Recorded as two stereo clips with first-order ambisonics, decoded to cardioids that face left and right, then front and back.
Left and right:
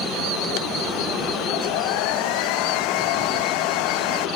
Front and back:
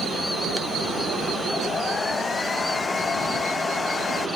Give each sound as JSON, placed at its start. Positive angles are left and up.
{"t": 1.5, "sound": "a hair dryer", "azimuth_deg": 75}